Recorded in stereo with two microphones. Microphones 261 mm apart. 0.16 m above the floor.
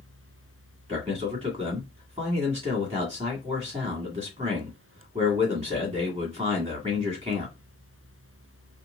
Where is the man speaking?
25° right (ahead or behind), 1.8 m.